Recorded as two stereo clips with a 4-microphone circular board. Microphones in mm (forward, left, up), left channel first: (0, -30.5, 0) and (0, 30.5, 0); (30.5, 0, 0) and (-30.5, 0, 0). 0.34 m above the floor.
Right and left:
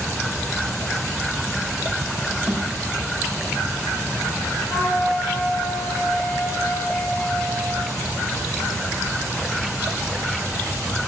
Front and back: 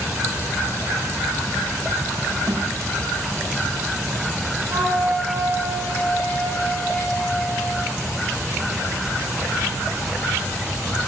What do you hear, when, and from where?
2.5 s a snare drum: 165° left, 8.5 m
4.7 s a flute: 175° left, 9.5 m